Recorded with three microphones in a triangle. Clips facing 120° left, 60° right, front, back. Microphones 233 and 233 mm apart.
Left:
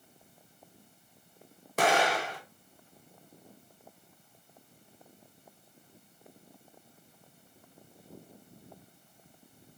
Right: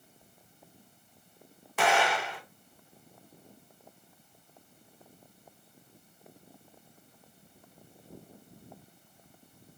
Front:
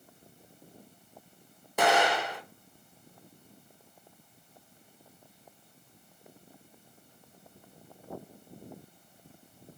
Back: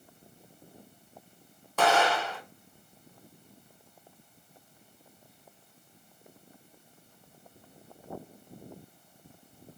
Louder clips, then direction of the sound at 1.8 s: Left 1 dB, even; 70° left.